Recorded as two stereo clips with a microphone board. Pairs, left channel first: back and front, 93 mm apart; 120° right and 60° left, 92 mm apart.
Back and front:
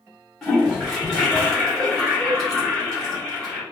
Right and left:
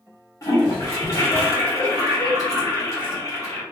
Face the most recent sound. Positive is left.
turn(degrees=-95)